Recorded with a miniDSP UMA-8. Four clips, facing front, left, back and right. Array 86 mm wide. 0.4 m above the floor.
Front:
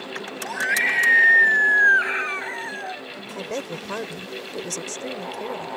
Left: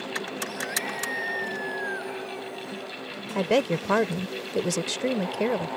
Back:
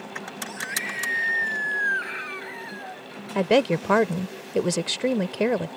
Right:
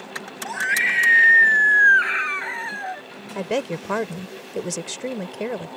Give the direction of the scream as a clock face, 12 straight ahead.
2 o'clock.